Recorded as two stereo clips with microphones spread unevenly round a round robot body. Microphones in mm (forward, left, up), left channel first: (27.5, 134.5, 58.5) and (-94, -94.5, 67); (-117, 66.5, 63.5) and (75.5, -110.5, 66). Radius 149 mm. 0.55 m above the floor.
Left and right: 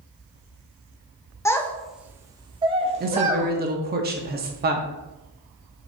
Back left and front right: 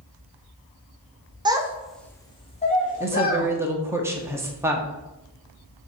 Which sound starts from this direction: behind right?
A woman speaking, at 3.0 s.